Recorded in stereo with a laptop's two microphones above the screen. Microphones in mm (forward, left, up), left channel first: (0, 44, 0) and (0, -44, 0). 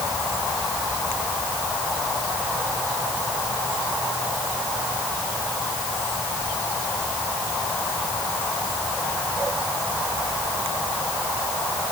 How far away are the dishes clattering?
I don't hear dishes clattering.